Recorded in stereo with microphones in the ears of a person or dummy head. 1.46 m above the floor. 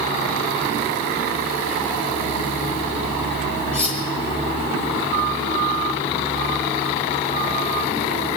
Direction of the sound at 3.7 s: 10° left (ahead or behind).